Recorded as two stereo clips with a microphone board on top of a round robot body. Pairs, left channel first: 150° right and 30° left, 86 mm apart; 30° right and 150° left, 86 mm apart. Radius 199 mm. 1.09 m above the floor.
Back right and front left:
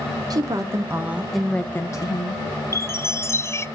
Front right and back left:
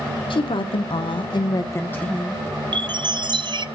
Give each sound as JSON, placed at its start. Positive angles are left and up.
{"t": 0.3, "sound": "a woman speaking", "azimuth_deg": -15, "distance_m": 1.6}
{"t": 2.7, "sound": "a chime", "azimuth_deg": 155, "distance_m": 0.6}